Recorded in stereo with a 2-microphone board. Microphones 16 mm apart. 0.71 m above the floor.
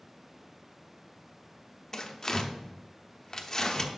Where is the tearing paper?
20° left (ahead or behind), 0.7 m.